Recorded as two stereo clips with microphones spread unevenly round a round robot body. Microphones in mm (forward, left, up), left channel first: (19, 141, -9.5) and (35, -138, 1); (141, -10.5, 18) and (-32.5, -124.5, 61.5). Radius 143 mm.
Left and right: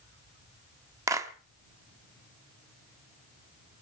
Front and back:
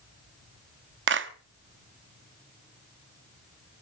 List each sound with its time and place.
1.1 s a clap: 165° right, 1.2 m